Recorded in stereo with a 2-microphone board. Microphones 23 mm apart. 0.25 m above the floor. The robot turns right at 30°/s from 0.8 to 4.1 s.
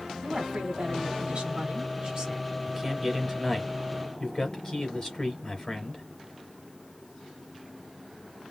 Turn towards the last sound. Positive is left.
turn(degrees=25)